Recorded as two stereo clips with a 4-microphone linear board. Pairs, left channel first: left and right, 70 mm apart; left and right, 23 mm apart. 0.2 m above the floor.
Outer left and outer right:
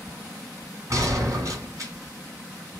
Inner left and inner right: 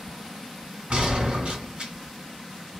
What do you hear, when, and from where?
0.9 s a gunshot: 45° right (ahead or behind), 1.9 m